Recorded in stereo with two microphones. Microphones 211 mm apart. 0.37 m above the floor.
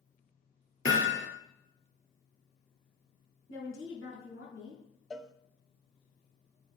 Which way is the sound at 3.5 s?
75° left (ahead or behind).